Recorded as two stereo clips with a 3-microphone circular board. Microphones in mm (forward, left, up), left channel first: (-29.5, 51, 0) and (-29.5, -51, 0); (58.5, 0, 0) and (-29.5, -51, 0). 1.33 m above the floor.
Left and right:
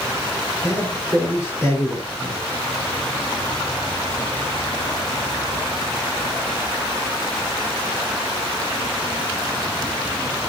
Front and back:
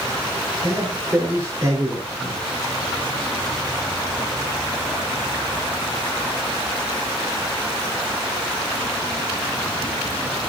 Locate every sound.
0.6 s a man speaking: 150° left, 4.5 m